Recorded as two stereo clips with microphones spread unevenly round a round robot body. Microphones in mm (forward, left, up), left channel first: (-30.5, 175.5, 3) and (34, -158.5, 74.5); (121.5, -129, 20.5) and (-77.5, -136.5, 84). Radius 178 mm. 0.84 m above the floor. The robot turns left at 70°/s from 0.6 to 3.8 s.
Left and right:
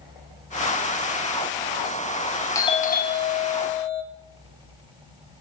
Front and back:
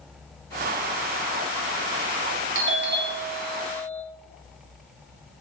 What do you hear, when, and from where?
2.5 s a doorbell: 165° left, 0.9 m; by 4.0 s 80° left, 0.9 m